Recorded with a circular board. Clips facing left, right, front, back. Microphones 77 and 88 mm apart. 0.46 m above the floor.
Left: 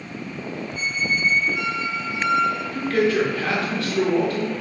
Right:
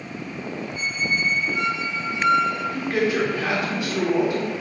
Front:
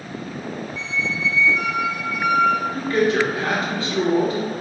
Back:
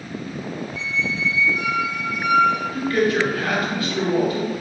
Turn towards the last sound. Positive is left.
turn(degrees=-30)